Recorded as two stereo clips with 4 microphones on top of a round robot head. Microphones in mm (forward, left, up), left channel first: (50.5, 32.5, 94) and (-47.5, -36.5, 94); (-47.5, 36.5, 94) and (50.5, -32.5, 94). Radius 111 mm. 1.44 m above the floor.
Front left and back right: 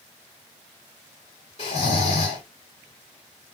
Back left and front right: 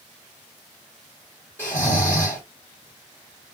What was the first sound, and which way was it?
Snoring, 70° left.